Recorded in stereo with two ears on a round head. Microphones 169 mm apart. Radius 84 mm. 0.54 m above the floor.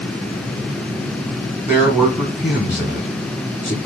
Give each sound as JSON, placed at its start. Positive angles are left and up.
{"t": 1.6, "sound": "a man speaking", "side_deg": 10, "distance_m": 1.2}